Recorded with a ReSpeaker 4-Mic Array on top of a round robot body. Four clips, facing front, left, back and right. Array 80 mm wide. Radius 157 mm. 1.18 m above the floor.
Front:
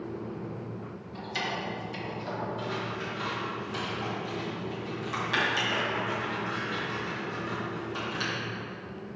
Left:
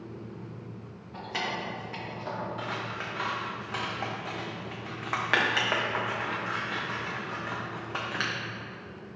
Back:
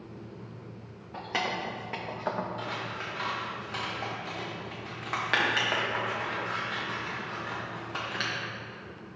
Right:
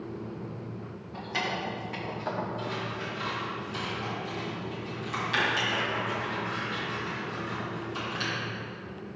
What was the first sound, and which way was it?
Keys jangling, 175° left.